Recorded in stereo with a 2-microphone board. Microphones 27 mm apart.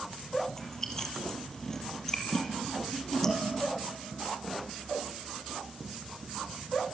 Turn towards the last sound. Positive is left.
turn(degrees=20)  # may be behind; listen again after turning